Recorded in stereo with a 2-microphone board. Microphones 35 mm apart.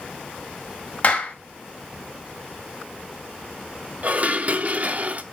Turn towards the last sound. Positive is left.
turn(degrees=-45)  # may be behind; listen again after turning